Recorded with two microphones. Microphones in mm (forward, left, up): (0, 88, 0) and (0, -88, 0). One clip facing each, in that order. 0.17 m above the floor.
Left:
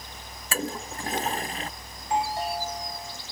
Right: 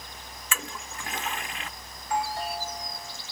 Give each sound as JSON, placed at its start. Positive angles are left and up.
{"t": 0.5, "sound": "a toilet flushing", "side_deg": 35}
{"t": 2.0, "sound": "a doorbell", "side_deg": 25}